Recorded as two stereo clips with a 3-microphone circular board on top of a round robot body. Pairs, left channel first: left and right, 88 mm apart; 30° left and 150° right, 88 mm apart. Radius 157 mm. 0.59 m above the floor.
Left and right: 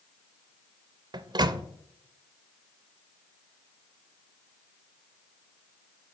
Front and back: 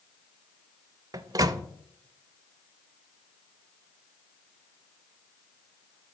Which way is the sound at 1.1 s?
110° right.